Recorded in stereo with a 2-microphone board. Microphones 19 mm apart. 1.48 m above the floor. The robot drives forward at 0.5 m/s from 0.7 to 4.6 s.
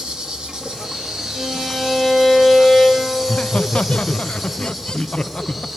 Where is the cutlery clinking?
I don't hear cutlery clinking.